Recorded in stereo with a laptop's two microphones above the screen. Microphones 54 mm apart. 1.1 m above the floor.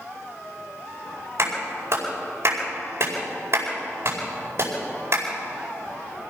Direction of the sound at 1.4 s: 55° right (ahead or behind).